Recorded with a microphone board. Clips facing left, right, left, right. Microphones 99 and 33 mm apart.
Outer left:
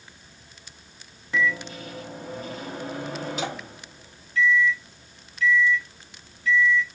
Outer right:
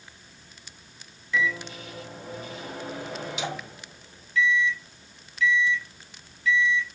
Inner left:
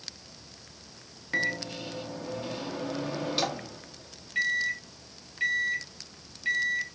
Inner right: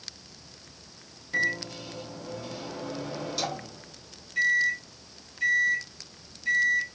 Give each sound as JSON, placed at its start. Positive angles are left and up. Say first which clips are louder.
{"t": 1.3, "sound": "a microwave", "louder": "outer left 2 dB, inner right 2 dB", "side_deg": 40, "distance_m": 1.2}